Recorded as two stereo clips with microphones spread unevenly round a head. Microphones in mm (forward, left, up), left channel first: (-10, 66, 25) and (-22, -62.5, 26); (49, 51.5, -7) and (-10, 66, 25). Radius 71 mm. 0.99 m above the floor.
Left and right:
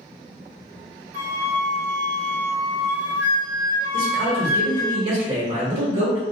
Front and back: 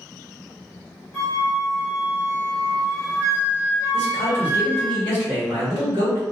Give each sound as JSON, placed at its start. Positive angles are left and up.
{"t": 1.1, "sound": "a flute", "azimuth_deg": -40, "distance_m": 0.9}
{"t": 3.9, "sound": "a man speaking", "azimuth_deg": -135, "distance_m": 1.3}